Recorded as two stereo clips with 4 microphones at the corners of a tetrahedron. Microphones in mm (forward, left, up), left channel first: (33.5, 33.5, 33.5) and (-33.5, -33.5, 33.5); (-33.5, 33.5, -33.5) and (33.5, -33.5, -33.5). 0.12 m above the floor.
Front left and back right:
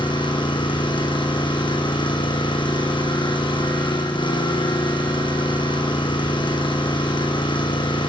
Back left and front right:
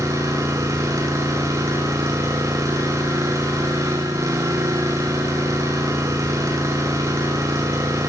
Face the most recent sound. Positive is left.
turn(degrees=15)